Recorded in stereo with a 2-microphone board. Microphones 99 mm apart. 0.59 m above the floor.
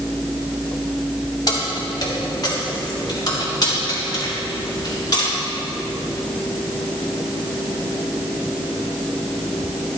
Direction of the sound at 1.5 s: 45° left (ahead or behind).